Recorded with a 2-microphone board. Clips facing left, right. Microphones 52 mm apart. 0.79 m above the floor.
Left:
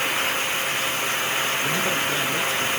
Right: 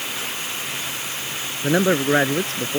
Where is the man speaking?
65° right (ahead or behind).